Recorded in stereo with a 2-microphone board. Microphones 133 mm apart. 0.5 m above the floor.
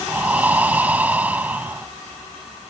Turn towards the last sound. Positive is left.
turn(degrees=-15)  # may be behind; listen again after turning